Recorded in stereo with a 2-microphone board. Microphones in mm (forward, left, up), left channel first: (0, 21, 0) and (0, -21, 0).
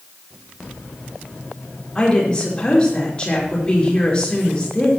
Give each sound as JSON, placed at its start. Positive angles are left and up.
{"t": 1.9, "sound": "a woman speaking", "side_deg": 25, "distance_m": 5.5}